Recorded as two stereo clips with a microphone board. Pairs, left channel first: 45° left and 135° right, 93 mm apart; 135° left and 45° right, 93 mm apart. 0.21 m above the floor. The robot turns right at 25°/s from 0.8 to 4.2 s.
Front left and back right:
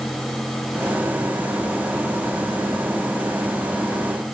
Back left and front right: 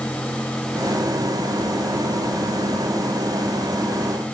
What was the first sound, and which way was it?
Only background noise.